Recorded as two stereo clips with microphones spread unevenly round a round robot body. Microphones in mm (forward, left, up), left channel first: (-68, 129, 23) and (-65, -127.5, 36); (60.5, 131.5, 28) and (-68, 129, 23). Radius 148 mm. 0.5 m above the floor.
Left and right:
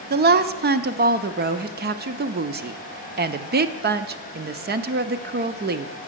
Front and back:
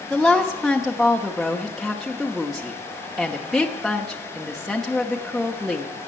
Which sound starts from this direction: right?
A woman speaking, at 0.1 s.